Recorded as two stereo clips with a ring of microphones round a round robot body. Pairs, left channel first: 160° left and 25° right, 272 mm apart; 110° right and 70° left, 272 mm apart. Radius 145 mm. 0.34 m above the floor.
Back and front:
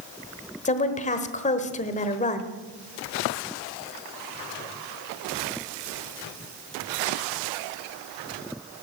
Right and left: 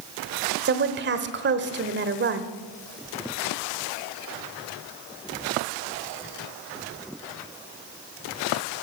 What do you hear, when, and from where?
0.7 s a woman speaking: 100° left, 1.2 m